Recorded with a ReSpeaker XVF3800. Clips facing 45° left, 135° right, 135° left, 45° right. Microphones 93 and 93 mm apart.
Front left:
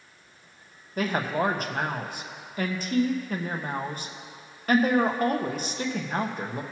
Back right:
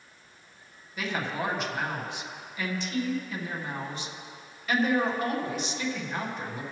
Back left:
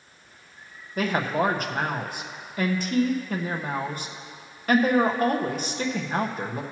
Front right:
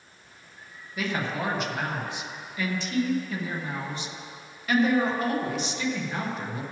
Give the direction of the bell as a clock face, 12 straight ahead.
No bell in this recording.